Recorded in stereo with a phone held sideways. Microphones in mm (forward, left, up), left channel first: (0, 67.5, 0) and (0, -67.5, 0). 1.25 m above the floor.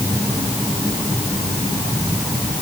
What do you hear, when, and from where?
Only background noise.